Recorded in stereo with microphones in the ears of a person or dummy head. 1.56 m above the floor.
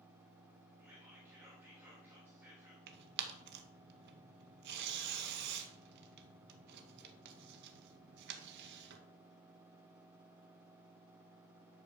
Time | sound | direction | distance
0.8 | whispering | 10° right (ahead or behind) | 3 m
2.9 | tearing paper | 60° right (ahead or behind) | 1.8 m